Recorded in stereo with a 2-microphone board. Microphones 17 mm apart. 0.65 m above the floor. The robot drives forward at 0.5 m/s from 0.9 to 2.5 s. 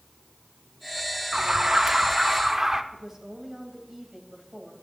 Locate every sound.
1.3 s an alarm: 50° right (ahead or behind), 0.6 m; by 2.8 s 30° right (ahead or behind), 1.0 m
2.9 s a woman speaking: 35° right (ahead or behind), 3.5 m